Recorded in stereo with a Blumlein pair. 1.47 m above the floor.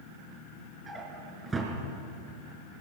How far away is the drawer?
About 5 m.